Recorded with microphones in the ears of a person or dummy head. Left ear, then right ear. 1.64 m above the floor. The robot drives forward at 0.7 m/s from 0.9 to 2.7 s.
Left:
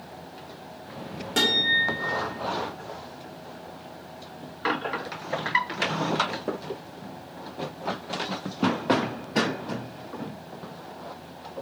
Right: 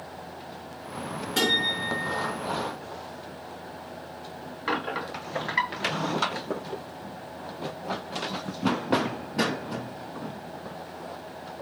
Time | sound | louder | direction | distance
1.4 | a guitar | left 3 dB | 20° left (ahead or behind) | 0.8 m